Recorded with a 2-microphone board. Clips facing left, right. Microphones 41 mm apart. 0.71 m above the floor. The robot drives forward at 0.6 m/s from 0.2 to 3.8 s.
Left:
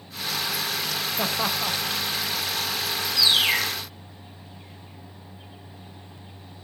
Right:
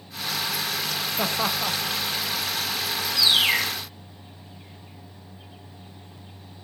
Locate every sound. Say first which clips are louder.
1.2 s laughter: right 1 dB; 5° right (ahead or behind), 0.8 m
3.2 s a bird: right 1 dB; 10° right (ahead or behind), 2.5 m